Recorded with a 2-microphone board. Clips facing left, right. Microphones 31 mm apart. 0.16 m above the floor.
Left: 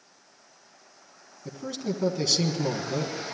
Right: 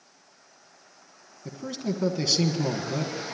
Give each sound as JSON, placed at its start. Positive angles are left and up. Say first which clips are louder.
{"t": 1.4, "sound": "a man speaking", "louder": "right 1 dB", "side_deg": -10, "distance_m": 1.3}